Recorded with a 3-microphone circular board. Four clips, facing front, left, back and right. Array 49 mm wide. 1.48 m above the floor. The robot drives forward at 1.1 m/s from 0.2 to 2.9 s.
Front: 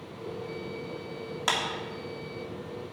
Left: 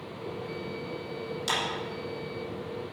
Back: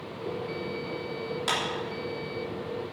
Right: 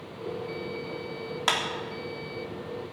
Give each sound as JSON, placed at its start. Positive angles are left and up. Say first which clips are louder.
{"t": 1.5, "sound": "a clap", "louder": "right 4 dB, front 1 dB", "azimuth_deg": -70, "distance_m": 3.0}